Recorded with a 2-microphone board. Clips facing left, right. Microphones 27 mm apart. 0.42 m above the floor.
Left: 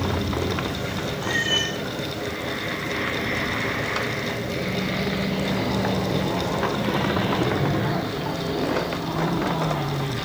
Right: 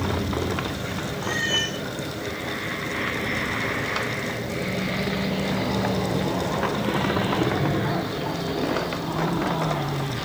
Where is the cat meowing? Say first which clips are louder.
Left 1 dB; 60° right (ahead or behind), 9.5 m.